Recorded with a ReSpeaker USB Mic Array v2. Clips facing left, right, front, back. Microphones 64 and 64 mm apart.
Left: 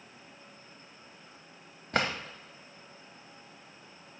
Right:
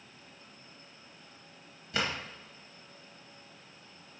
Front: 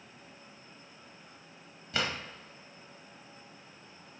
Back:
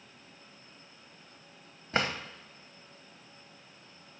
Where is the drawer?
130° left, 0.8 m.